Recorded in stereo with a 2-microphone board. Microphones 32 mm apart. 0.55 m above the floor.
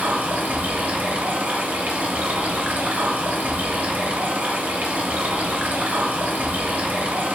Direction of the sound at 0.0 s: 50° right (ahead or behind).